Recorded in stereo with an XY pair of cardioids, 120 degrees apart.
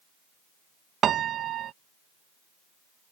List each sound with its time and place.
1.0 s a piano: 55° right